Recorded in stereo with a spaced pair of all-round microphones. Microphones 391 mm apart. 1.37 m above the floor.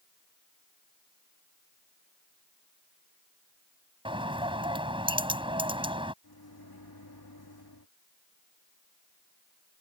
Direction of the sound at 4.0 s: 15° right (ahead or behind).